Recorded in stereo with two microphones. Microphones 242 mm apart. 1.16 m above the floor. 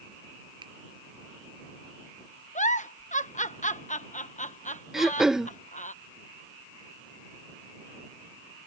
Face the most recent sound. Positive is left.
turn(degrees=0)  # may be behind; listen again after turning